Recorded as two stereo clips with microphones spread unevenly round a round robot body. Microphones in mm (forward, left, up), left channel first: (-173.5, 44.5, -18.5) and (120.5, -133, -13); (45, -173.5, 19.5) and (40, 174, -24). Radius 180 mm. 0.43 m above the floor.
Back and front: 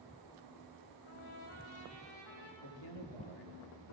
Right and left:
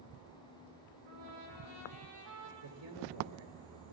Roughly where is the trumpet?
Behind left.